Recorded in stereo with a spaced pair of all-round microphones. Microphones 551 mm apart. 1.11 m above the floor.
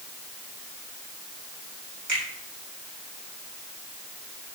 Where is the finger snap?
75° right (ahead or behind), 4 m.